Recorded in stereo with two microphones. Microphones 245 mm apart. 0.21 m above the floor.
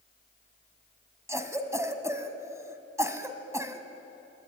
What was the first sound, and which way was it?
A cough, 10° right (ahead or behind).